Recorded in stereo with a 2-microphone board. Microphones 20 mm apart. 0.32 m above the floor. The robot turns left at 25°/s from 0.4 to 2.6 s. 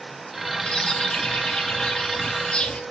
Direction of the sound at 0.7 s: 110° left.